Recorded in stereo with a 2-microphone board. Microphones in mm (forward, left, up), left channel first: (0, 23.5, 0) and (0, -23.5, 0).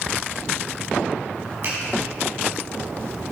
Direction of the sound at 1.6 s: 60° right (ahead or behind).